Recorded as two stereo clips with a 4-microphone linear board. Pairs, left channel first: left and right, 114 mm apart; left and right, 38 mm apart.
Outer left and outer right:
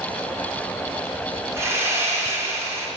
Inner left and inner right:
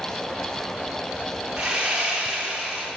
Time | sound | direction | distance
1.6 | sawing | 20° right (ahead or behind) | 4 m